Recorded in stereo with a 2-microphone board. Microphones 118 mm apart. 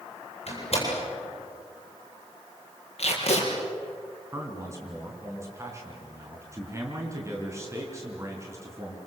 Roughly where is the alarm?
I don't hear an alarm.